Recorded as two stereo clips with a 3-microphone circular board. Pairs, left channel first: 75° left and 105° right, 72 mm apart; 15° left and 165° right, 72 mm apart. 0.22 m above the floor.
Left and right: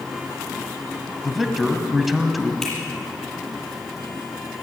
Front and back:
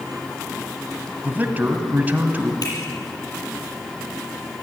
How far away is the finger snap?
About 6.5 m.